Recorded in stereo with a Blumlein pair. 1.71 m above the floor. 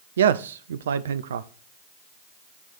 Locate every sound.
0.2 s a man speaking: 65° right, 0.6 m